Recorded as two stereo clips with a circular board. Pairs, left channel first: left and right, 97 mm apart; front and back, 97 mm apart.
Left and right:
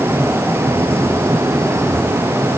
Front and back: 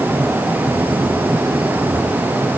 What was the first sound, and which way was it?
Only background noise.